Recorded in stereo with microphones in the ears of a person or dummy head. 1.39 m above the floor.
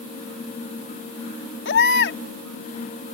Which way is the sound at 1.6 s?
75° left (ahead or behind).